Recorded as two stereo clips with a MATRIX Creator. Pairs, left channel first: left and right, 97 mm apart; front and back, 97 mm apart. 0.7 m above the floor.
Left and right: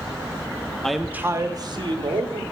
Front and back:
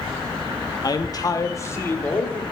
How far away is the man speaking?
About 0.7 m.